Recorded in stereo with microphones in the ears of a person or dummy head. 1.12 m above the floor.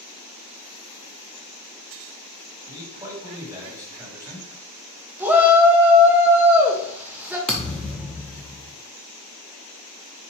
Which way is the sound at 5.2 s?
Centre (ahead or behind).